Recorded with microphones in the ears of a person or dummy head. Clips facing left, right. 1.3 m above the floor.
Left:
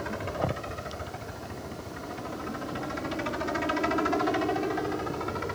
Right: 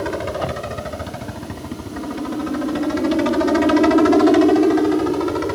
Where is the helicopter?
70° right (ahead or behind); by 5.6 s 65° right (ahead or behind).